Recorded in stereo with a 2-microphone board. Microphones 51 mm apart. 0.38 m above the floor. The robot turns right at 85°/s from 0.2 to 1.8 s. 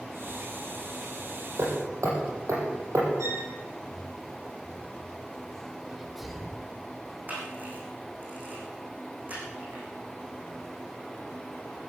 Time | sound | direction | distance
1.6 | hammering | 60° right (ahead or behind) | 6.5 m
3.2 | a violin | 90° right | 8.5 m
5.9 | a sneeze | centre (ahead or behind) | 1.3 m
7.3 | a camera shutter | 35° right (ahead or behind) | 7 m